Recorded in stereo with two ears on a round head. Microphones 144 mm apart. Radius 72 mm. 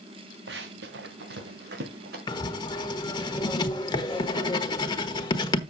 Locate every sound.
0.5 s running footsteps: 75° right (ahead or behind), 1.8 m; by 2.2 s 65° right (ahead or behind), 3.5 m
2.3 s writing: 25° left (ahead or behind), 1.1 m